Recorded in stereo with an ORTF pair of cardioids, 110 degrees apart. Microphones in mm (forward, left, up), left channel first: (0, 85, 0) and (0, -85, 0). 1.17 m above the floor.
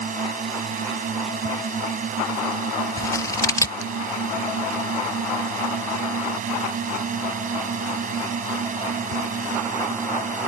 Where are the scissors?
15° left.